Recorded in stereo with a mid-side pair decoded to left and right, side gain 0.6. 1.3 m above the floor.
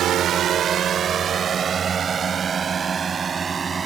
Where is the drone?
50° right; by 3.9 s 25° right.